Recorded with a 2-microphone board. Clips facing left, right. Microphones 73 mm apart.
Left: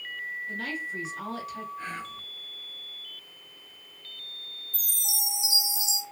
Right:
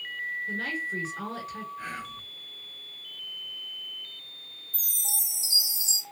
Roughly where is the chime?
Right.